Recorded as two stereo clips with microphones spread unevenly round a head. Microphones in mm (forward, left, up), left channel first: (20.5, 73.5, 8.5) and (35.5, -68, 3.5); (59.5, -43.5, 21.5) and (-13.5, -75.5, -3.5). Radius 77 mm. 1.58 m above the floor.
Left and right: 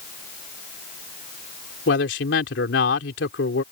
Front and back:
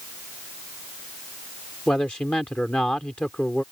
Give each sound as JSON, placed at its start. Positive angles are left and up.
{"t": 1.9, "sound": "a man speaking", "azimuth_deg": 105}